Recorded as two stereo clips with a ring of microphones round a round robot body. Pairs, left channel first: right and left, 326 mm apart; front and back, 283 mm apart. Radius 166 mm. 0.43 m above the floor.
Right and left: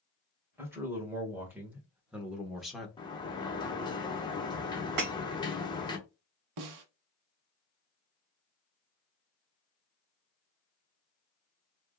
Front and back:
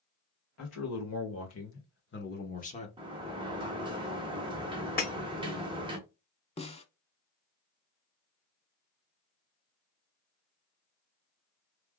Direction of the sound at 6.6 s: 70° left.